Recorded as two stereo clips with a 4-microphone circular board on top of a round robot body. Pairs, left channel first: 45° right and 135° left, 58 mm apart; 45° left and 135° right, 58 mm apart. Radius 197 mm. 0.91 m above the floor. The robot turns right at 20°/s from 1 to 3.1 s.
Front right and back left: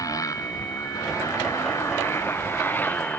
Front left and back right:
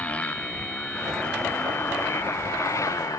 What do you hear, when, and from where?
0.0 s a motorcycle: 25° right; by 3.2 s 20° left